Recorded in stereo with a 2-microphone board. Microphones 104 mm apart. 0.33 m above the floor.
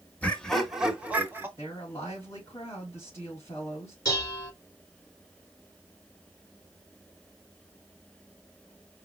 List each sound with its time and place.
0.2 s laughter: 15° left (ahead or behind), 1.0 m; by 1.5 s 20° right (ahead or behind), 1.3 m
1.6 s a woman speaking: 25° left (ahead or behind), 3.5 m
4.0 s dishes clattering: 30° left (ahead or behind), 3.5 m